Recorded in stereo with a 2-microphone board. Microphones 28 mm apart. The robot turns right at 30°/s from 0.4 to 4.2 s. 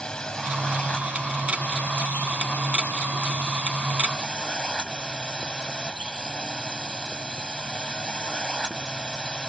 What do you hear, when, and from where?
0.0 s a drone: 35° left; by 9.5 s 150° left